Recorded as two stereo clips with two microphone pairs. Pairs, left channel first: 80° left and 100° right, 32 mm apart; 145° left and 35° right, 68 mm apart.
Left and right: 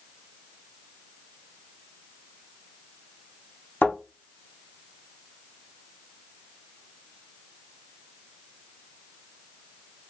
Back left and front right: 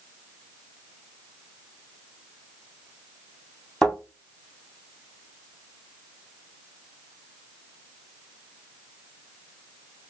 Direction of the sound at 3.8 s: 65° left.